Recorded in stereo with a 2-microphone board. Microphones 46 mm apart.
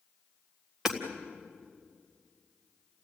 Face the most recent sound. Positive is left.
turn(degrees=-10)  # may be behind; listen again after turning